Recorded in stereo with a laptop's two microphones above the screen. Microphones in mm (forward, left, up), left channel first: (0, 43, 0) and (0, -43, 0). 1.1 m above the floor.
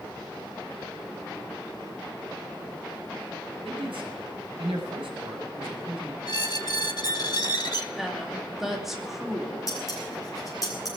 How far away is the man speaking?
About 5.5 m.